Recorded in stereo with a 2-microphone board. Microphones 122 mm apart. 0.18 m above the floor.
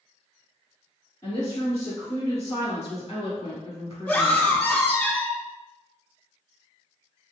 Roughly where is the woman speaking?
Left.